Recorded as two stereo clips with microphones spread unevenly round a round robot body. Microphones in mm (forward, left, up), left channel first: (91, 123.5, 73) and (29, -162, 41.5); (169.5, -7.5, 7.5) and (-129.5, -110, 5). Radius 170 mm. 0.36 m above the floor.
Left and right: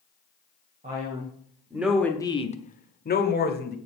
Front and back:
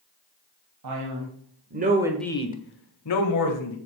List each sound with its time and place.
0.8 s a man speaking: 165° right, 2.5 m; by 3.8 s 20° left, 2.5 m